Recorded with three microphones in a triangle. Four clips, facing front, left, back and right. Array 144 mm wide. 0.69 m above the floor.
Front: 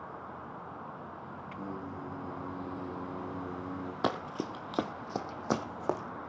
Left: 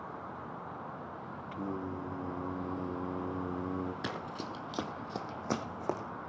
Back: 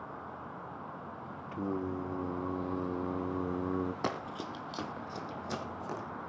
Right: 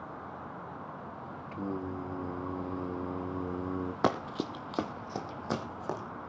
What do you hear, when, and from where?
1.5 s singing: 165° right, 0.5 m
4.0 s running footsteps: 70° right, 1.2 m; by 6.0 s 15° left, 2 m